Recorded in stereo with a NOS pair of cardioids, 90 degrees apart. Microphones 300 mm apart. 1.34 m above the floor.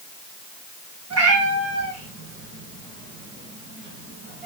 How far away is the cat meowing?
About 3.5 m.